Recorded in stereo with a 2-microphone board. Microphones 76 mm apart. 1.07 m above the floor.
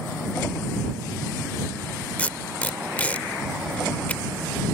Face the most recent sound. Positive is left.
turn(degrees=20)  # may be behind; listen again after turning